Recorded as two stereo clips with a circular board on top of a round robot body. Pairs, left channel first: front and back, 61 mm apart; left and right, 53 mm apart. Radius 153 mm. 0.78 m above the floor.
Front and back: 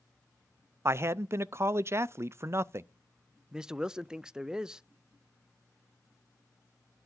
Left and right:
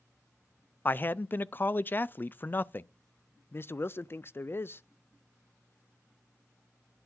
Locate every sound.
0.8 s a man speaking: 140° left, 0.5 m
3.5 s a man speaking: 105° left, 0.5 m